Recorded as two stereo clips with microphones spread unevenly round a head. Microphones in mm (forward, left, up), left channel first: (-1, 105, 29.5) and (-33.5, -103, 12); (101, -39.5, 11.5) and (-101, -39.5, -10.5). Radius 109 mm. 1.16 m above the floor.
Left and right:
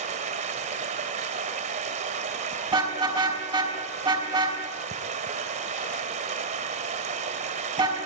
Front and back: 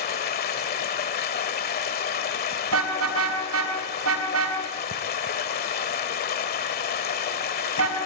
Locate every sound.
0.0 s running water: 40° right, 2 m
2.7 s a car horn: 170° right, 5.5 m